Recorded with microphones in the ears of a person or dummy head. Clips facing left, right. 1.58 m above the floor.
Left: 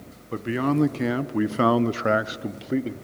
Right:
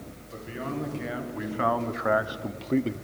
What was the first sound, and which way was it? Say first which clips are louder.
A man speaking: left 11 dB; 70° left (ahead or behind).